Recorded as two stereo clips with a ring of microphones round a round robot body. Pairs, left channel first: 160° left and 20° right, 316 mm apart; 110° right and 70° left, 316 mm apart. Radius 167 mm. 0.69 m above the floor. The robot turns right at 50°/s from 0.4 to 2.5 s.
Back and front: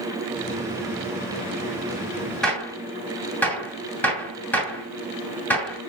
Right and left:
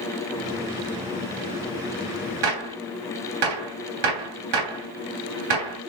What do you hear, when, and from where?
2.4 s a gunshot: 70° left, 2.5 m